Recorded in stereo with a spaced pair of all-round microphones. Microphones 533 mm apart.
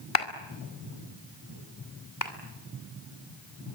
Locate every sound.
0.1 s a clap: 70° left (ahead or behind), 2 m
2.2 s a clap: 35° left (ahead or behind), 3 m